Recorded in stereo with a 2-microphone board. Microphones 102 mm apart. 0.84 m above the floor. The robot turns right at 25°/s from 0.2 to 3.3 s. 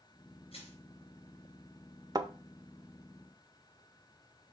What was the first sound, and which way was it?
Crushing, 70° left (ahead or behind).